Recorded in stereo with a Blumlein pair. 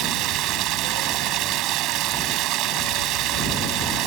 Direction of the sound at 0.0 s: 35° right.